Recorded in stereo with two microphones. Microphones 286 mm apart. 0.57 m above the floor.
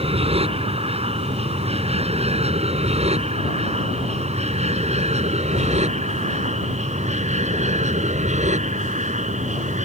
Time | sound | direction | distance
0.0 | an aircraft | 20° right (ahead or behind) | ?